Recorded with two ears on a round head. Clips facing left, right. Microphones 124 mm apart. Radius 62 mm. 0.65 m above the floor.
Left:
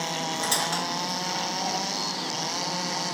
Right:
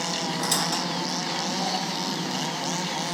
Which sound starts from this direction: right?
A squeak, at 0.4 s.